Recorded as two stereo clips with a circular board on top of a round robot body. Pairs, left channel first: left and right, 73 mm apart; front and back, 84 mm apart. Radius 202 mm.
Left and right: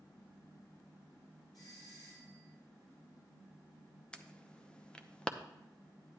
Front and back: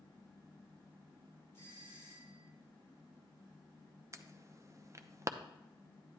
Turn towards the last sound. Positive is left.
turn(degrees=160)